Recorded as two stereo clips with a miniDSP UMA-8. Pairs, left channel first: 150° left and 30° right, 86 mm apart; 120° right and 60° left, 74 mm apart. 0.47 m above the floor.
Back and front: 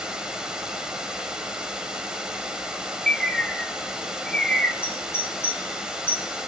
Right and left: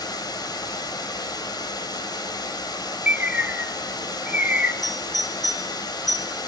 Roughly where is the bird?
Left.